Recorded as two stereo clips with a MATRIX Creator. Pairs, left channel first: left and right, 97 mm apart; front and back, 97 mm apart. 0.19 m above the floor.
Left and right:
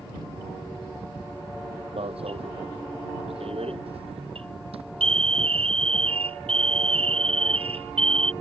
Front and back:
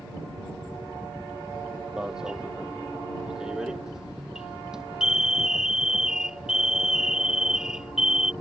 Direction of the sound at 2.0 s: 95° right.